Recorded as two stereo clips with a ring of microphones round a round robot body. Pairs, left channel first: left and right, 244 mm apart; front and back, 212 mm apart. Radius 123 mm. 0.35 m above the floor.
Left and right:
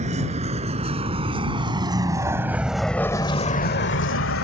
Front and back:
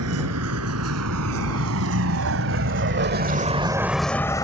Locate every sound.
0.0 s a vehicle: 155° right; by 4.5 s 70° left